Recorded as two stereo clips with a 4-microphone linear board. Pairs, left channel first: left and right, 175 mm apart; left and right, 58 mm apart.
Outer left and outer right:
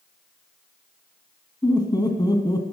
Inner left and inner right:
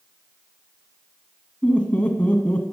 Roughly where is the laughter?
Left.